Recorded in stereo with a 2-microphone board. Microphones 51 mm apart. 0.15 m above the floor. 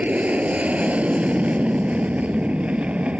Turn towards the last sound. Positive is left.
turn(degrees=-30)  # may be behind; listen again after turning